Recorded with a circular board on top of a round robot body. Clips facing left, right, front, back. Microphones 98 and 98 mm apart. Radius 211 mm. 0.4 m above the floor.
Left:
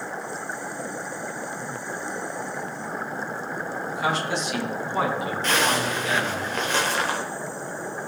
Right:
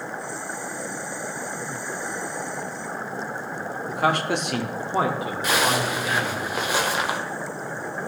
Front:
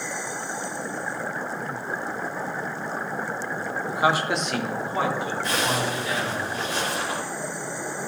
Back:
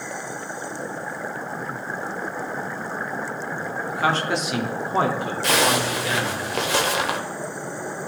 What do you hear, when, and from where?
3.9 s a man speaking: 65° right, 1.4 m; by 6.4 s 175° right, 2.5 m
5.4 s a zipper: 170° right, 0.7 m